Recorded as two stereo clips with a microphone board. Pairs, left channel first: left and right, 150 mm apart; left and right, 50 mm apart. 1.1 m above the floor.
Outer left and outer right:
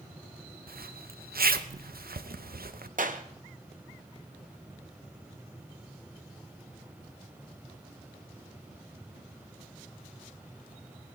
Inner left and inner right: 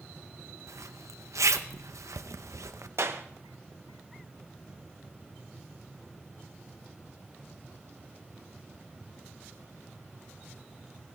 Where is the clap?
65° right (ahead or behind), 0.8 m.